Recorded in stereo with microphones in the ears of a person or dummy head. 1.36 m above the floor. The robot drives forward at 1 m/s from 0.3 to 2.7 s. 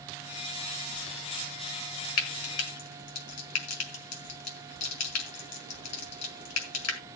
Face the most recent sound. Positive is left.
turn(degrees=90)